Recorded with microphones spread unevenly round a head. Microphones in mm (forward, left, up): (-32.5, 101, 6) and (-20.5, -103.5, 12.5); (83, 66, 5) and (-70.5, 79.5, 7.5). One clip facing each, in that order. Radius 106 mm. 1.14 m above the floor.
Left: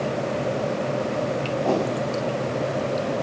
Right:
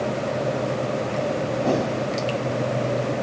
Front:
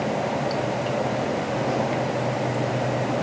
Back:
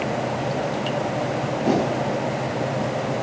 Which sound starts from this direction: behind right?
A whoosh, at 1.6 s.